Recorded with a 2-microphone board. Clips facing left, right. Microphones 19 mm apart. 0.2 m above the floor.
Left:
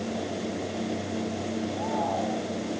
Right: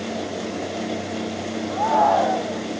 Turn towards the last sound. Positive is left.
turn(degrees=-80)